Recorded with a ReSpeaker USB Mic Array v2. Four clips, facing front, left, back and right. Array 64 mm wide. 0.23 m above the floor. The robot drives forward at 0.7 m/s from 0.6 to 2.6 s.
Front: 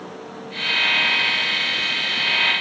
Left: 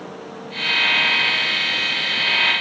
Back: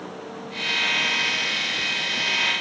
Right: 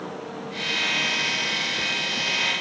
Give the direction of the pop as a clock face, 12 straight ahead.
No pop in this recording.